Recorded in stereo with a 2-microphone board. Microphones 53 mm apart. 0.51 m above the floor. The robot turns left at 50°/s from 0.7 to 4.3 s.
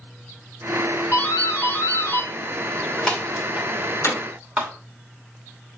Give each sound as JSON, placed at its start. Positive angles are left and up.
{"t": 1.1, "sound": "a doorbell", "side_deg": 45, "distance_m": 2.5}
{"t": 4.0, "sound": "hammering", "side_deg": 65, "distance_m": 5.0}